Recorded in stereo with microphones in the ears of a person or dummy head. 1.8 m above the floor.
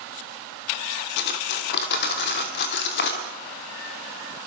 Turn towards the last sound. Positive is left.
turn(degrees=65)  # may be behind; listen again after turning